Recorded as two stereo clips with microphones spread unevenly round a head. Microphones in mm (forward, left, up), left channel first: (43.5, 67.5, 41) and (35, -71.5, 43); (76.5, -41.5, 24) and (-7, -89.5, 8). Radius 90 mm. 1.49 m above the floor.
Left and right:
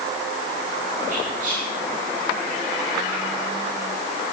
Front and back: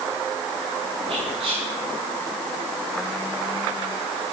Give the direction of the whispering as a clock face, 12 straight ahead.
5 o'clock.